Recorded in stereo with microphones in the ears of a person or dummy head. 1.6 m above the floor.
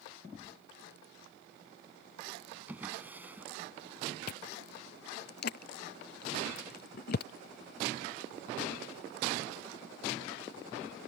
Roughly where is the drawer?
Centre.